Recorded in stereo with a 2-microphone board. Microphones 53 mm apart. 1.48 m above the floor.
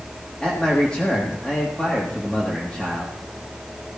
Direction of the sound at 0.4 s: 20° left (ahead or behind).